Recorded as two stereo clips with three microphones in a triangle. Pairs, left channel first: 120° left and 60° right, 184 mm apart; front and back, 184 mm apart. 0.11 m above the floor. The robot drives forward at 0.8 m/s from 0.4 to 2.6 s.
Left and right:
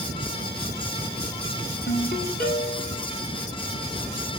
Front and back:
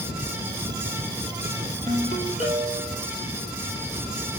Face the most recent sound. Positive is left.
turn(degrees=145)